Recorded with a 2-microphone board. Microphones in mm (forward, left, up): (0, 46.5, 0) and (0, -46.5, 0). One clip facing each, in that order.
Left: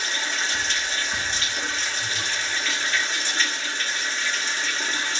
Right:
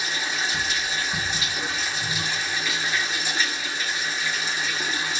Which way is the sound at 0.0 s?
10° right (ahead or behind).